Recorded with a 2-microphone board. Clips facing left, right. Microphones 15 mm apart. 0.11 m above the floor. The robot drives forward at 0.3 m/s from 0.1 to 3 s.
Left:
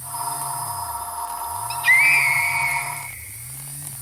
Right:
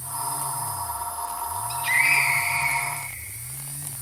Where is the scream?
35° left (ahead or behind), 3 m.